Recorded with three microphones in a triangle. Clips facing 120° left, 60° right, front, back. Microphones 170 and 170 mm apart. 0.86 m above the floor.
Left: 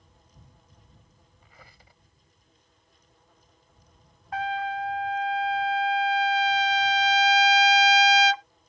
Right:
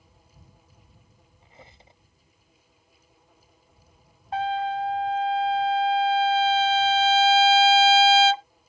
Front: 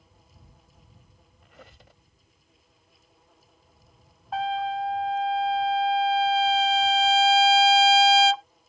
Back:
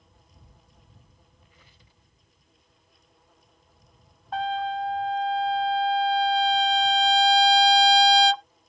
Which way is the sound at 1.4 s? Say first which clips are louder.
Right 4 dB, front 9 dB; 5° left.